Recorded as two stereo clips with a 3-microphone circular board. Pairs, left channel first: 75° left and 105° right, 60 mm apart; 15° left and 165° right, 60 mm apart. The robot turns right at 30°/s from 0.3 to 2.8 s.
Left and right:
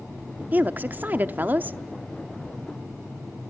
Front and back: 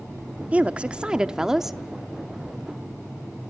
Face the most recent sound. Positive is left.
turn(degrees=-55)